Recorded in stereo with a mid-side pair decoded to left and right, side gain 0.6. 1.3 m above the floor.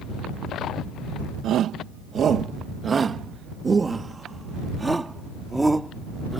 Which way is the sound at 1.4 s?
55° right.